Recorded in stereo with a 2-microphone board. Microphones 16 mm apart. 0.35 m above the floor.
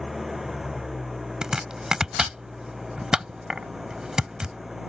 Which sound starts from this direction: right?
Chopping, at 1.4 s.